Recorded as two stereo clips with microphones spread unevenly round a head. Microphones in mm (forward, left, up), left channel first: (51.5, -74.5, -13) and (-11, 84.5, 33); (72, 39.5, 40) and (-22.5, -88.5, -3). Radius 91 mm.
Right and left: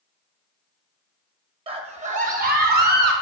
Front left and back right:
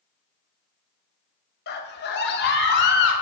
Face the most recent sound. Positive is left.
turn(degrees=85)